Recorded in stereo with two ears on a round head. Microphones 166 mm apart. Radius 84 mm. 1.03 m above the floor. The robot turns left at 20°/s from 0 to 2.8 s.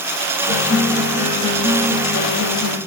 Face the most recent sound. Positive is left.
turn(degrees=65)